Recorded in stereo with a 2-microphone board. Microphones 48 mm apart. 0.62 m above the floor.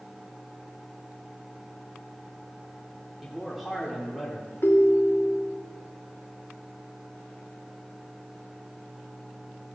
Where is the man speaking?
Centre (ahead or behind), 2 m.